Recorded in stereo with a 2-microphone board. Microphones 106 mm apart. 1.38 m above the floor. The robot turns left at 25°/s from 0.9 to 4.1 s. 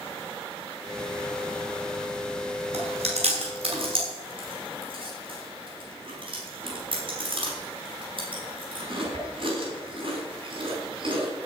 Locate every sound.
2.7 s chewing: 80° right, 6 m; by 11.3 s 55° right (ahead or behind), 6 m